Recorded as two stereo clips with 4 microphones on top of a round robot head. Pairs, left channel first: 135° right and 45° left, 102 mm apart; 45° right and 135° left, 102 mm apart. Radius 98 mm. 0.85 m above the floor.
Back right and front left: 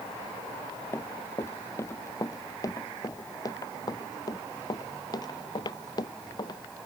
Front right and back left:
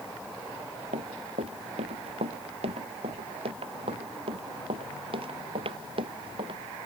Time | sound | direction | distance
0.9 | running footsteps | 155° left | ?